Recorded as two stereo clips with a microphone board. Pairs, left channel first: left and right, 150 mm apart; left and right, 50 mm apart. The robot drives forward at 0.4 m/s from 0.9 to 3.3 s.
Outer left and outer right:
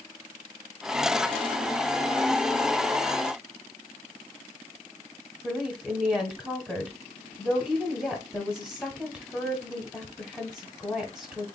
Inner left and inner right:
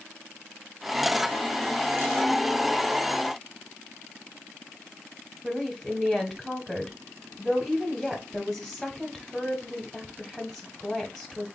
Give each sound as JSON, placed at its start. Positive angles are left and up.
{"t": 5.4, "sound": "a woman speaking", "side_deg": 0, "distance_m": 1.1}